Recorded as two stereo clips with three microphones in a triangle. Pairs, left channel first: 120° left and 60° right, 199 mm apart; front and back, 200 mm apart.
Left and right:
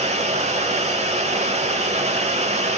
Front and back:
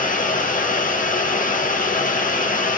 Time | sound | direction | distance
0.0 | running water | 20° right | 0.7 m